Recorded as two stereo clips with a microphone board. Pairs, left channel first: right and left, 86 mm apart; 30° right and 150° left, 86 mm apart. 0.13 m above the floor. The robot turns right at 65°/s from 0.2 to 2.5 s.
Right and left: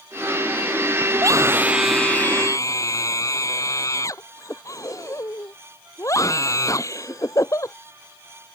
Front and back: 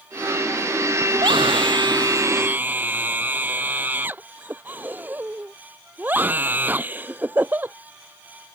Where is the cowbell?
I don't hear a cowbell.